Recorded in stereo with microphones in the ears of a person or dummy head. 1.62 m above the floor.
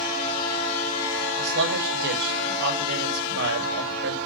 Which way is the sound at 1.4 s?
60° right (ahead or behind).